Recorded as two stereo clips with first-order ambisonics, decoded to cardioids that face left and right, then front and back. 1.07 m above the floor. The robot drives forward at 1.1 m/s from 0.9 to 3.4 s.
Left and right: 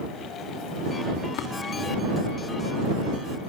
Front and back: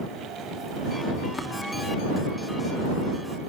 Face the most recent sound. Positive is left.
turn(degrees=120)